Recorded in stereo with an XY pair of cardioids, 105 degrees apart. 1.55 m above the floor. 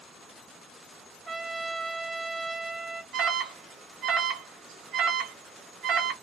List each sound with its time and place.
1.3 s a trumpet: 35° right, 0.6 m
3.1 s an alarm: 65° right, 1.3 m